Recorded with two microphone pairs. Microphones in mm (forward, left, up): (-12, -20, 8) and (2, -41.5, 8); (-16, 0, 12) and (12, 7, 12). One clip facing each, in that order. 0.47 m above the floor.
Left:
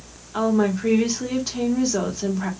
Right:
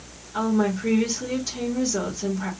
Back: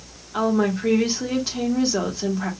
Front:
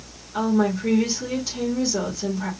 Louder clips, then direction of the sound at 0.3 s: Left 2 dB, even; 170° left.